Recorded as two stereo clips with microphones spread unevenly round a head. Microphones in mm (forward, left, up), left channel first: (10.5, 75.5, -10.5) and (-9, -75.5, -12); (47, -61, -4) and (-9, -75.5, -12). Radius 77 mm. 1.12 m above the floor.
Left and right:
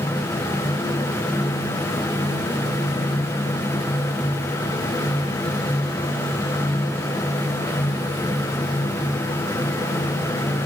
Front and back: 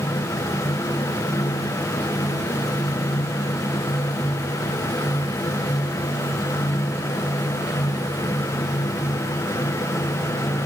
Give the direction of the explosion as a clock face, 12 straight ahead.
No explosion in this recording.